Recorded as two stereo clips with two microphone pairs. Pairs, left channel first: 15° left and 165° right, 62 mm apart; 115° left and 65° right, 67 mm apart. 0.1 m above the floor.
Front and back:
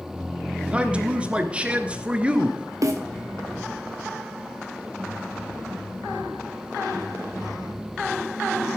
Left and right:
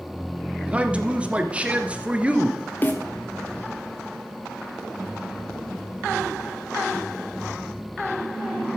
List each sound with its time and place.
0.7 s a man speaking: 120° right, 1.4 m
2.8 s a snare drum: 170° left, 1.6 m